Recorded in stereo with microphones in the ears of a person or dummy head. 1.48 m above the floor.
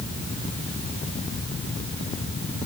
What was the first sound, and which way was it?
Only background noise.